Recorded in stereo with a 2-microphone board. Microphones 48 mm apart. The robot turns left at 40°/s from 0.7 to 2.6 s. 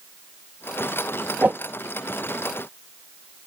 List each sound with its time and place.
1.4 s a whoosh: 40° right (ahead or behind); by 1.6 s 30° right (ahead or behind)